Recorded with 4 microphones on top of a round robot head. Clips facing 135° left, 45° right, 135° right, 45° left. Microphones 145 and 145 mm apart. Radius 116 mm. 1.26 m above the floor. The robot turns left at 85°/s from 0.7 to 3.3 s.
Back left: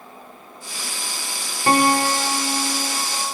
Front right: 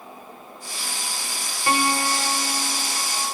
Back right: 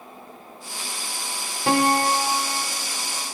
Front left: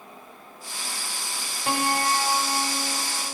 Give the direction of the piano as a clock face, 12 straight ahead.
5 o'clock.